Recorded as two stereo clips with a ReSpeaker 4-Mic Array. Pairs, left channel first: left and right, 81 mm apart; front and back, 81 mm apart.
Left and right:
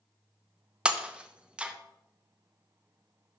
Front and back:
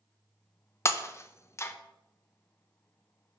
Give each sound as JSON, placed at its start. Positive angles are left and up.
{"t": 0.8, "sound": "breaking glass", "azimuth_deg": -25, "distance_m": 0.6}